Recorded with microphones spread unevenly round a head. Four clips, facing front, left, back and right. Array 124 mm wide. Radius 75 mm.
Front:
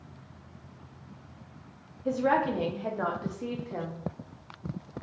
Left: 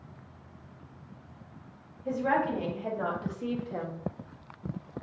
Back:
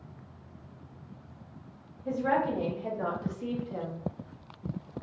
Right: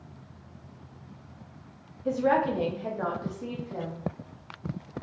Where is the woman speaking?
20° right, 1.3 m; by 4.0 s 40° left, 0.9 m.